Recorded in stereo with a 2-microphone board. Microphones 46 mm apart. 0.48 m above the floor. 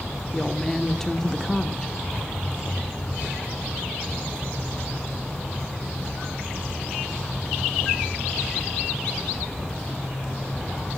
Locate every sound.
0.3 s a woman speaking: 10° left (ahead or behind), 0.7 m
2.2 s a thud: 25° right (ahead or behind), 1.5 m